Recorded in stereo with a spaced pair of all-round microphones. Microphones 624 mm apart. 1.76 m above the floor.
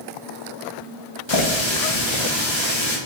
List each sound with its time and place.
1.3 s a running tap: 45° left (ahead or behind), 1.0 m